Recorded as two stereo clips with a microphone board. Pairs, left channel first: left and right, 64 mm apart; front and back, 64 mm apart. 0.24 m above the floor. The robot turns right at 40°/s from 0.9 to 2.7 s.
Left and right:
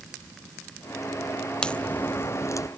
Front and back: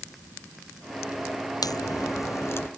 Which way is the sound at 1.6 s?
10° left.